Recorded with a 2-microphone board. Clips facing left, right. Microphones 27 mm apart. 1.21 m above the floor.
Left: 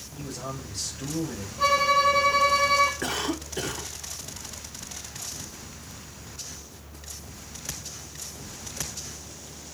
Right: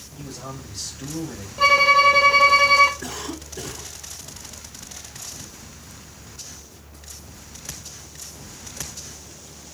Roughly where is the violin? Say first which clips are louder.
Right 6 dB; right.